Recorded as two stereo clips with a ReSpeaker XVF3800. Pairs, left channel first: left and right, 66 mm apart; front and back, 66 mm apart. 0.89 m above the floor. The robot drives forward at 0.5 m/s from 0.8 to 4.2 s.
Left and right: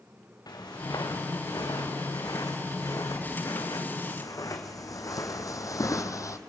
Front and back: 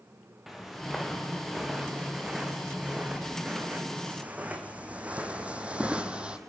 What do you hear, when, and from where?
0.5 s footsteps: 95° left, 4 m; by 6.4 s 110° left, 1.6 m